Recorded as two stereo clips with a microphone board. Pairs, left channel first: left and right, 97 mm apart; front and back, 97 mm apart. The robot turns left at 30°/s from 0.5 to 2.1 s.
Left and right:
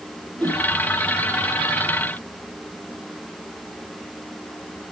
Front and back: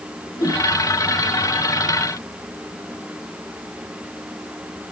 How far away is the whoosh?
About 6.5 m.